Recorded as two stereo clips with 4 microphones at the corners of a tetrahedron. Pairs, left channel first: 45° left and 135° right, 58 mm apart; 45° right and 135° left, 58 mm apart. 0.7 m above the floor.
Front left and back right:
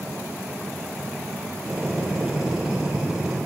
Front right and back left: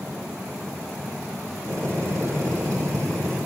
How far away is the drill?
About 7.5 m.